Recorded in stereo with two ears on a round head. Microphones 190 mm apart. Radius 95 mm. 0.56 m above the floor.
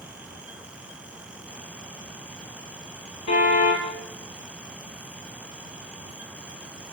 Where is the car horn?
80° left, 8 m.